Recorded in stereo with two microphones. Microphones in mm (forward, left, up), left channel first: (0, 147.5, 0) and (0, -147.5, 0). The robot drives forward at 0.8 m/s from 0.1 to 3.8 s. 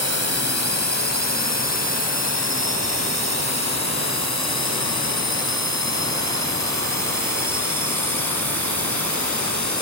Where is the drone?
60° right (ahead or behind); by 9.8 s 70° right (ahead or behind).